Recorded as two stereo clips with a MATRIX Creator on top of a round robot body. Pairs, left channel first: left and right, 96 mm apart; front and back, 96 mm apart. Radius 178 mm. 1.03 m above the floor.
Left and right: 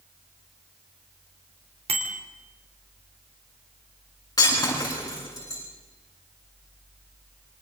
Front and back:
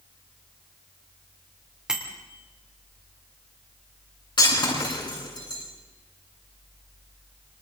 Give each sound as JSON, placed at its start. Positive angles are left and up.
{"t": 1.9, "sound": "a bicycle bell", "azimuth_deg": -100, "distance_m": 3.0}
{"t": 4.4, "sound": "breaking glass", "azimuth_deg": 35, "distance_m": 9.5}